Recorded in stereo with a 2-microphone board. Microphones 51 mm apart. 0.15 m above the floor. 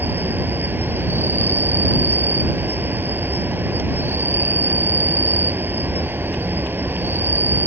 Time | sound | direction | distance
0.0 | an insect | 45° right (ahead or behind) | ?